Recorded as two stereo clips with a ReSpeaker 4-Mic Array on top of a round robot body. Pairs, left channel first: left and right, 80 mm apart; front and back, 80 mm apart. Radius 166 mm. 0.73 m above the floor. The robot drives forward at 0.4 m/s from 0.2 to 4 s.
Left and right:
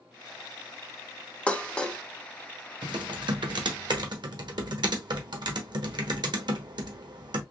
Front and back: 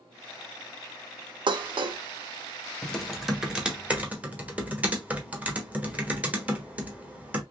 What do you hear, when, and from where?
1.5 s dishes clattering: 165° left, 0.6 m; by 2.0 s 170° left, 0.8 m
2.8 s typing on a keyboard: 85° right, 1.1 m; by 7.4 s 110° right, 1.2 m